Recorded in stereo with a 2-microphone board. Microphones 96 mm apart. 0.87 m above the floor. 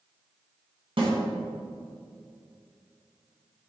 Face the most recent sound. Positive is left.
turn(degrees=-70)  # may be behind; listen again after turning